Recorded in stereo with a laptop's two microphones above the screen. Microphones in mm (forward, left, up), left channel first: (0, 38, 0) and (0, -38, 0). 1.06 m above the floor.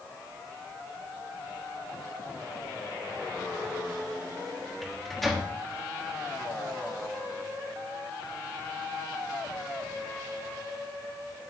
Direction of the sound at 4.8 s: Centre (ahead or behind).